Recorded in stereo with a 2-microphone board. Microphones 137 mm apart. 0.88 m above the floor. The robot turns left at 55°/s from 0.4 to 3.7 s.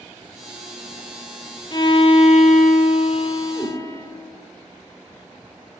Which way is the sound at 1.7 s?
140° left.